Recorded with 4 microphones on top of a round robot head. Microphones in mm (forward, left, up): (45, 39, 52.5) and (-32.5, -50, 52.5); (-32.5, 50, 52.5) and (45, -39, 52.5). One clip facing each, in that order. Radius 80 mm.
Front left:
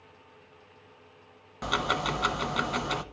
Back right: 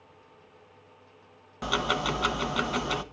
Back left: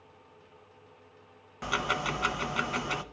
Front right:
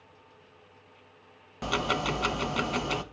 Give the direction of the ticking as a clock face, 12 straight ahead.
2 o'clock.